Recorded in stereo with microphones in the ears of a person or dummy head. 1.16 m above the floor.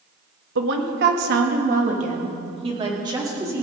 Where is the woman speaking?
70° right (ahead or behind), 1.3 m; by 3.6 s 15° right (ahead or behind), 2.5 m.